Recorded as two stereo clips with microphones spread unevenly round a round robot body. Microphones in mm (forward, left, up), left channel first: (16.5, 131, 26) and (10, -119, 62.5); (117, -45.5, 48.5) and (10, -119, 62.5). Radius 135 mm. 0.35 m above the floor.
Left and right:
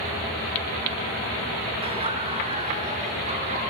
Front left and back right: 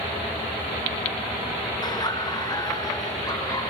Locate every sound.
1.8 s laughter: 20° right, 5 m; by 3.7 s 25° right, 6 m